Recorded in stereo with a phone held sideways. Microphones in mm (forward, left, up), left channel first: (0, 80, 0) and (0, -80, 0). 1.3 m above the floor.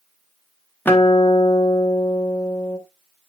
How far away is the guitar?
About 1.3 m.